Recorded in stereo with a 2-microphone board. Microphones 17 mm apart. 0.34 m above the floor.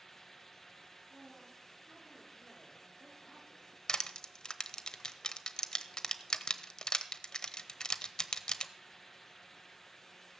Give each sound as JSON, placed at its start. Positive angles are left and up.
{"t": 1.1, "sound": "a woman speaking", "side_deg": -80, "distance_m": 9.0}
{"t": 3.9, "sound": "crushing", "side_deg": 45, "distance_m": 0.7}